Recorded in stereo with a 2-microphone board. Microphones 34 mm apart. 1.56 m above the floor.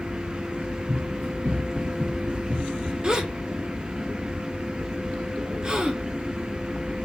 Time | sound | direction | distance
0.9 | running footsteps | 20° right (ahead or behind) | 2.5 m
3.0 | a gasp | 25° right (ahead or behind) | 0.7 m